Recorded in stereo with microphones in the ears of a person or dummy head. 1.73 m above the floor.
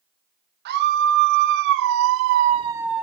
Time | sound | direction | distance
0.7 | a scream | 55° right (ahead or behind) | 1.6 m